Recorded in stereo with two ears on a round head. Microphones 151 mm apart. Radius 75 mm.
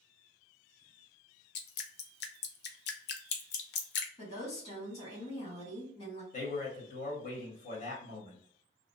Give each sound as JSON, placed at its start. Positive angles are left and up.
{"t": 1.6, "sound": "dripping", "side_deg": 65, "distance_m": 0.5}
{"t": 4.2, "sound": "a woman speaking", "side_deg": 40, "distance_m": 1.9}
{"t": 6.3, "sound": "a man speaking", "side_deg": 55, "distance_m": 1.1}